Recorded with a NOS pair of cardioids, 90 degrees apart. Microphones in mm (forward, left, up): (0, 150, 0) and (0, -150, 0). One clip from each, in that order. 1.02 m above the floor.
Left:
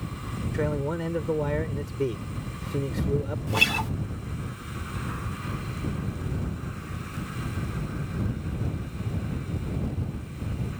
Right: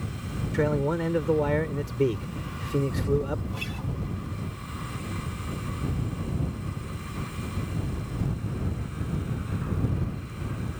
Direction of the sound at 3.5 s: 65° left.